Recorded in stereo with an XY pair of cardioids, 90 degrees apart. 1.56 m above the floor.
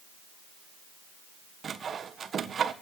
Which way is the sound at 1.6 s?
50° right.